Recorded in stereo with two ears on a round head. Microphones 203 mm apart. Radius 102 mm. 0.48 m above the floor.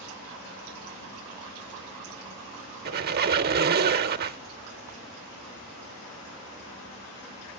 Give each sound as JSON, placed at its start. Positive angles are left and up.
{"t": 2.9, "sound": "a squeak", "side_deg": -45, "distance_m": 0.6}